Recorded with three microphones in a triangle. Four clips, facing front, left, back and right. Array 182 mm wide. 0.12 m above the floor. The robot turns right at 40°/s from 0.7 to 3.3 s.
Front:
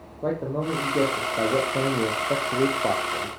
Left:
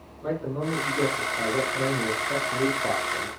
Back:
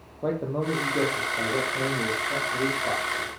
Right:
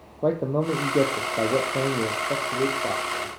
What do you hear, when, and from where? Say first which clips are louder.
0.2 s a man speaking: right 6 dB, front 1 dB; 85° right, 3.5 m; by 3.3 s 15° left, 3.5 m